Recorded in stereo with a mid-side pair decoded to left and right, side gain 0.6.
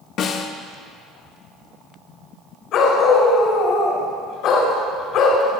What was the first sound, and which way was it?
A snare drum, 60° left.